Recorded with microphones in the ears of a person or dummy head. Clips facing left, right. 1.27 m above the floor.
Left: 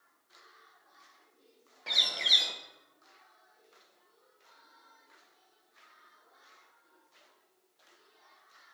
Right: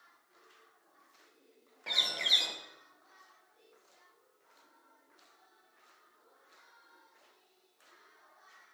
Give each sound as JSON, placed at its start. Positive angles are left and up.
{"t": 1.9, "sound": "a bird", "side_deg": 0, "distance_m": 0.8}